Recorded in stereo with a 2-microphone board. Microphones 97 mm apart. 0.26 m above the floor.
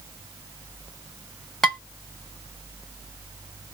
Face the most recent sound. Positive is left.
turn(degrees=5)  # may be behind; listen again after turning